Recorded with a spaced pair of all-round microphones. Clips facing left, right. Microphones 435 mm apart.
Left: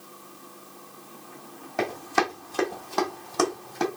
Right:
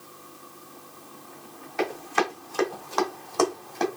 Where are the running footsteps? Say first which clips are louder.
Even; 60° left (ahead or behind), 2 m; by 3.9 s 20° left (ahead or behind), 1.7 m.